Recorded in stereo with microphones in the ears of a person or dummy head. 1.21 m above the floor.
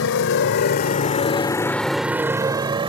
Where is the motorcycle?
70° left (ahead or behind); by 2.9 s 25° right (ahead or behind).